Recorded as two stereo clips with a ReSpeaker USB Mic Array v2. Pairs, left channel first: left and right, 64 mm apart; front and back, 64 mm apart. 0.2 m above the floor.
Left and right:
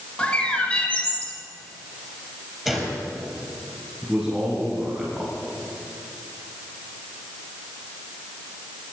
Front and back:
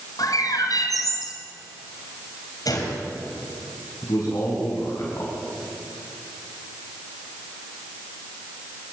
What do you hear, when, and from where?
0.2 s a bird: 15° left, 2.5 m
2.6 s a gunshot: 5° right, 5.5 m
4.0 s a man speaking: 10° right, 7.5 m